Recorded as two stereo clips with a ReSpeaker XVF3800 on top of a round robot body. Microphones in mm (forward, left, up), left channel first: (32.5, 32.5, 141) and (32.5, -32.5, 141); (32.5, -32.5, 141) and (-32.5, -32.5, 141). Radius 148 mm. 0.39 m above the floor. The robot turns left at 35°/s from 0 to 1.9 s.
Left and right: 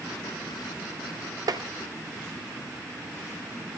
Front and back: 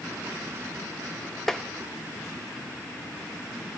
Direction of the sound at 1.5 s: 85° right.